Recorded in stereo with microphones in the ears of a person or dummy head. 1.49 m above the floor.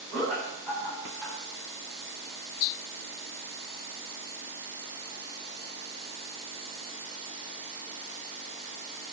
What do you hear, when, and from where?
0.1 s laughter: 5° left (ahead or behind), 4.5 m